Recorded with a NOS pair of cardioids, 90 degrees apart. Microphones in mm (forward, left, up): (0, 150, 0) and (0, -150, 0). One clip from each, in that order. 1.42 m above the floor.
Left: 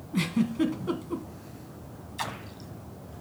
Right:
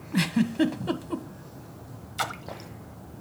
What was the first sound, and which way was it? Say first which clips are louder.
A giggle: right 3 dB; 30° right.